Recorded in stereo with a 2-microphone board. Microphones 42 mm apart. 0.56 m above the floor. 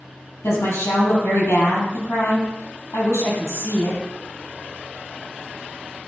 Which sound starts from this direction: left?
A woman speaking, at 0.4 s.